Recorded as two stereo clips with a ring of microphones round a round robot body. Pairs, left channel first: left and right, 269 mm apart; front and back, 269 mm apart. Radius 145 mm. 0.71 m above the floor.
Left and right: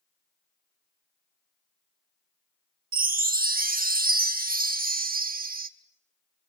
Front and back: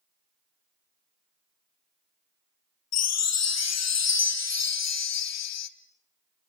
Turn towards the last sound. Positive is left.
turn(degrees=-30)